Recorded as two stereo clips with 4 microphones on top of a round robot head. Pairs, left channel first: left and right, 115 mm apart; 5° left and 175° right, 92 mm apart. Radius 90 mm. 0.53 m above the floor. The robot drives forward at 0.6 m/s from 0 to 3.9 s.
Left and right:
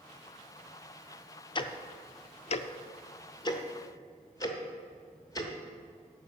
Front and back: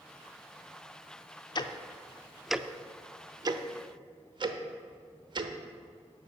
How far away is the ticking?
About 0.8 m.